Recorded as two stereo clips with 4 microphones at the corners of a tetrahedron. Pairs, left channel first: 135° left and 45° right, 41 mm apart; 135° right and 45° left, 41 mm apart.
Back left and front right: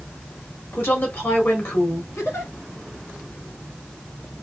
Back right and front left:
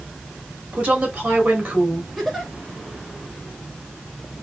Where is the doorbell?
I don't hear a doorbell.